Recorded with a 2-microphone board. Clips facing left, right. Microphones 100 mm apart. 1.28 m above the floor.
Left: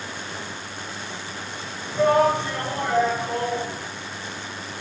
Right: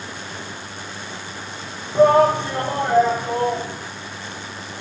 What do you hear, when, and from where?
1.9 s a shout: 45° right (ahead or behind), 0.9 m; by 3.7 s 40° right (ahead or behind), 1.8 m